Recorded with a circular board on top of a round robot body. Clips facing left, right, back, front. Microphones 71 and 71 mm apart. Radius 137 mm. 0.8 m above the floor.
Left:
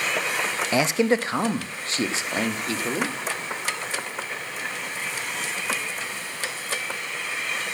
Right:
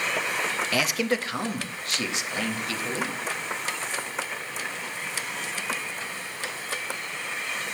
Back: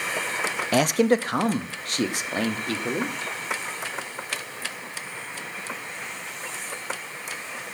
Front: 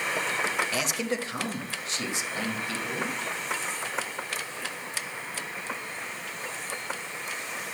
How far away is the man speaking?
About 0.8 m.